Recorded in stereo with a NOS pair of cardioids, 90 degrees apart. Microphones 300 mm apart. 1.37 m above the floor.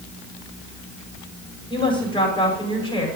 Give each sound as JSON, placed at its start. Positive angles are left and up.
{"t": 1.7, "sound": "a woman speaking", "azimuth_deg": 15, "distance_m": 5.0}